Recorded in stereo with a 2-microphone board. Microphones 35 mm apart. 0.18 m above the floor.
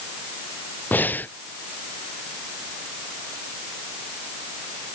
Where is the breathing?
65° left (ahead or behind).